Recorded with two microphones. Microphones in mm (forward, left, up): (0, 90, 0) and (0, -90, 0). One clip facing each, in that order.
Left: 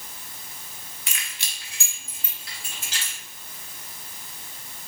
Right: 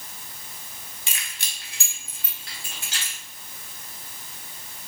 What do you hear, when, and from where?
1.1 s keys jangling: 25° right (ahead or behind), 0.8 m; by 3.1 s 75° right (ahead or behind), 3.5 m